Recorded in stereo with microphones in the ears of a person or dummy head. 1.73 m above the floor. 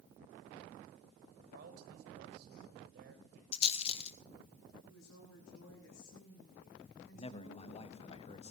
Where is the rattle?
35° left (ahead or behind), 1.4 m.